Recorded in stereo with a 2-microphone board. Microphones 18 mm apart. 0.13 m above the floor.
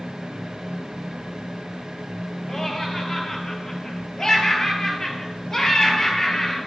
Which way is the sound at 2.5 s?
30° left (ahead or behind).